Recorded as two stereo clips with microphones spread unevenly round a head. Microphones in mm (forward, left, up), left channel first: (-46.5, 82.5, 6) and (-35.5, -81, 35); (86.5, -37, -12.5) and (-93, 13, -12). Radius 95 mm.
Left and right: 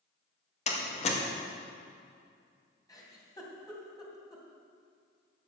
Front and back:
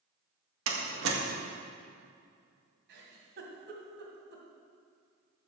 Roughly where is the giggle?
Behind.